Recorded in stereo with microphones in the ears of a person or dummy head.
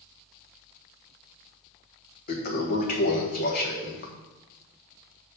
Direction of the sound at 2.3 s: 50° left (ahead or behind).